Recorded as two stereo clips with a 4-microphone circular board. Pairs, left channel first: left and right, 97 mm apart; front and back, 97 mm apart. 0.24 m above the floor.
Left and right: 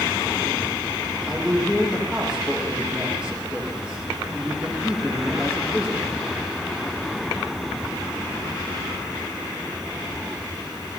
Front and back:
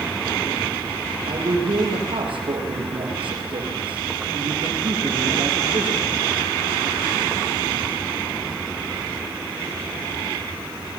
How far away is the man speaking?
About 9 m.